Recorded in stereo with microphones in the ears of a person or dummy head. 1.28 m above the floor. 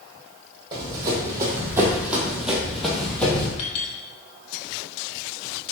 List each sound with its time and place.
0.7 s running footsteps: 25° right (ahead or behind), 3 m; by 3.5 s 10° left (ahead or behind), 2.5 m
3.6 s a clink: 40° left (ahead or behind), 3 m